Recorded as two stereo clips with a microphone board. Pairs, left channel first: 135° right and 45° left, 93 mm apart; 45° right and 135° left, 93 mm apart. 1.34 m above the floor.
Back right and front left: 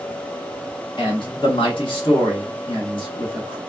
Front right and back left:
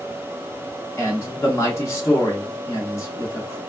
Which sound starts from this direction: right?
A man speaking, at 1.0 s.